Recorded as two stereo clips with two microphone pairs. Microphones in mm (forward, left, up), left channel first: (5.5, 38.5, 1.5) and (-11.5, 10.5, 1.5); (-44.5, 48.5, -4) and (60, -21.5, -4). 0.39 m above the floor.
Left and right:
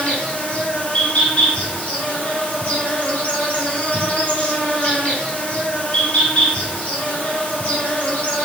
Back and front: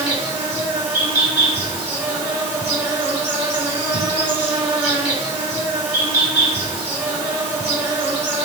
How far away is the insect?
About 1.8 m.